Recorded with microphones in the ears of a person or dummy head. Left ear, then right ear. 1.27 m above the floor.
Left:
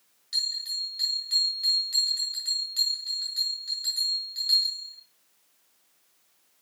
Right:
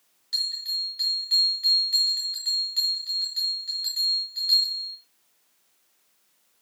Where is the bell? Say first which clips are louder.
Right 2 dB; 10° right (ahead or behind), 3.5 m.